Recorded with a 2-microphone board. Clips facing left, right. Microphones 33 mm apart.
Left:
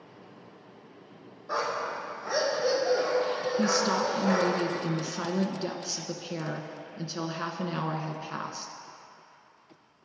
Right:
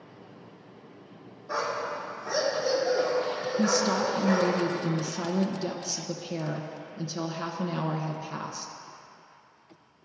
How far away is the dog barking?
About 2.5 m.